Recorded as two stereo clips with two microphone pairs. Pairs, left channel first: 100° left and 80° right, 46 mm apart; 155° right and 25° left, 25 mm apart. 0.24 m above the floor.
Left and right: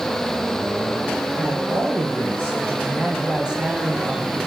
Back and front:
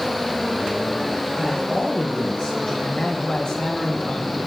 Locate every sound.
1.4 s a man speaking: 140° right, 4 m; by 2.7 s 120° right, 5 m
2.8 s a man speaking: 140° right, 1.8 m